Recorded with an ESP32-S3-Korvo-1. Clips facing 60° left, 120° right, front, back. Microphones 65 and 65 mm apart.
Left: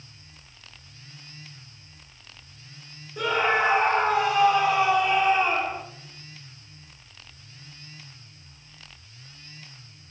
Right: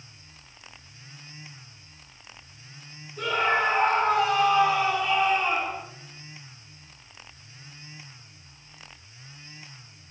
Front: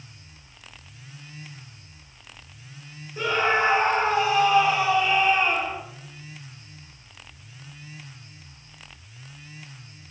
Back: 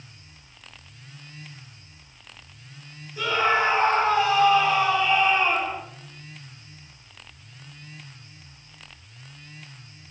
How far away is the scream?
About 5.5 m.